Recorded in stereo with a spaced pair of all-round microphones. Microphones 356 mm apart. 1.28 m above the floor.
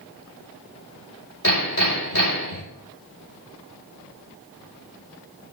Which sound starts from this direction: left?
Hammering, at 1.4 s.